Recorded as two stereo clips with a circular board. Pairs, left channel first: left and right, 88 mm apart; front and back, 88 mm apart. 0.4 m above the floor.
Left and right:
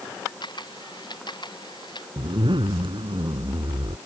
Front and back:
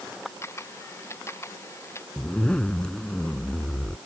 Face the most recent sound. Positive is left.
turn(degrees=-80)